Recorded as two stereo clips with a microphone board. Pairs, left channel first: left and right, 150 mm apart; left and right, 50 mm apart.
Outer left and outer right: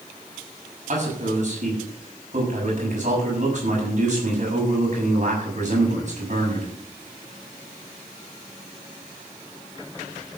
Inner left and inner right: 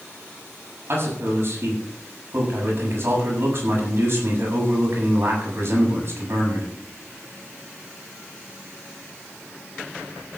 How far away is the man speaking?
About 7 m.